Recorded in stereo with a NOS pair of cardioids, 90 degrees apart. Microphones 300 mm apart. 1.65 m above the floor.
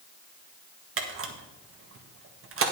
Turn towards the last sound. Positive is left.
turn(degrees=-45)